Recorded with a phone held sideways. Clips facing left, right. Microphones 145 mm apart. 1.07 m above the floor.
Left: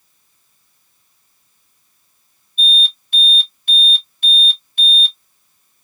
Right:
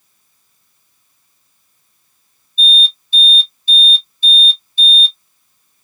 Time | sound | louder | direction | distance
2.6 | an alarm | right 2 dB | 65° left (ahead or behind) | 1.0 m